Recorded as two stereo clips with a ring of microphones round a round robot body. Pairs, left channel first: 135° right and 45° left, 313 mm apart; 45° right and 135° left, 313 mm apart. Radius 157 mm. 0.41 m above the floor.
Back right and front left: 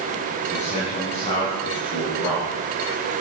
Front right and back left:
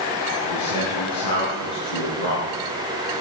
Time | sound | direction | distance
0.4 | a man speaking | 70° right | 4 m